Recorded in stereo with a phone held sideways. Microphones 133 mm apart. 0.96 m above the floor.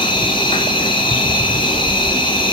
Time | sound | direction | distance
0.0 | an insect | 35° left (ahead or behind) | 2 m